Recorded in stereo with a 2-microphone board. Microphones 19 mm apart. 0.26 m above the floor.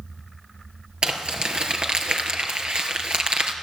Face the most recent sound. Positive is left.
turn(degrees=-60)  # may be behind; listen again after turning